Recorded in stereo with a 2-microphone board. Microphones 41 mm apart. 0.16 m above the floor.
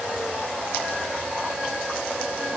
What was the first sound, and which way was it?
Only background noise.